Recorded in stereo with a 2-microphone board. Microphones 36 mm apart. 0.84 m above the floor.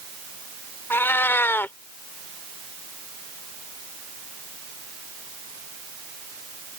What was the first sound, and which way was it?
A cat meowing, 75° left (ahead or behind).